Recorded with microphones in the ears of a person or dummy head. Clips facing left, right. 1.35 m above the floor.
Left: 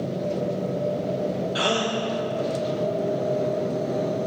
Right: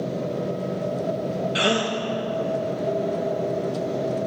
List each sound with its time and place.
1.6 s a gasp: 30° right (ahead or behind), 0.7 m